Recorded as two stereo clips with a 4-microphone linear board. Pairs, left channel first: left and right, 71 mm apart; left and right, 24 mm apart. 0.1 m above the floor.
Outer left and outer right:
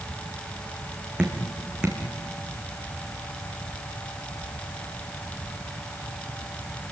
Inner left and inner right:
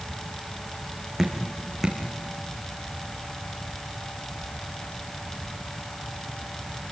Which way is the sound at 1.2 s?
15° right (ahead or behind).